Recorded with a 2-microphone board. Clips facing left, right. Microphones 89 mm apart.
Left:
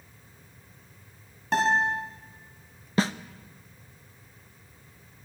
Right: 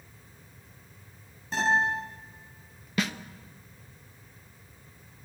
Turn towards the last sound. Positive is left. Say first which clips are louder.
# left 4 dB
turn(degrees=30)  # may be behind; listen again after turning